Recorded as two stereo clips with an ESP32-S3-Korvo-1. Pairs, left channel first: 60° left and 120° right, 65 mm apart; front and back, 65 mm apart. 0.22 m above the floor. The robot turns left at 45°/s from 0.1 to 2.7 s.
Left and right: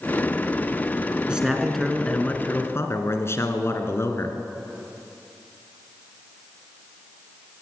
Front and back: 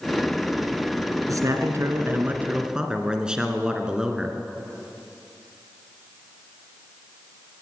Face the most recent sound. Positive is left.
turn(degrees=105)